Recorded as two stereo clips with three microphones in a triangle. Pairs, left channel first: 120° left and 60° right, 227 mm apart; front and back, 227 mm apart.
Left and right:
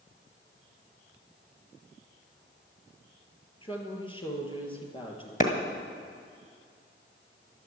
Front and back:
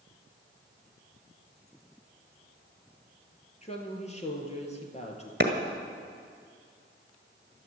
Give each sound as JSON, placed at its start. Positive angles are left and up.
{"t": 3.6, "sound": "a woman speaking", "azimuth_deg": 55, "distance_m": 2.5}
{"t": 5.4, "sound": "a clap", "azimuth_deg": 160, "distance_m": 1.5}